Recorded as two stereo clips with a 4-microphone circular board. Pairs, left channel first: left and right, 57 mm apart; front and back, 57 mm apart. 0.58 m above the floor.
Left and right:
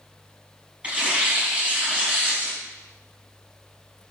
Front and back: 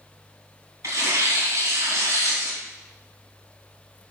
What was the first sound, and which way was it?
Tearing paper, 155° right.